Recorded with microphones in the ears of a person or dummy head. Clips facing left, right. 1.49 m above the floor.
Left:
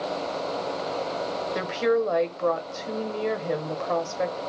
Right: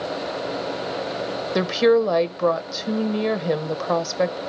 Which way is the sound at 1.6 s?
60° right (ahead or behind).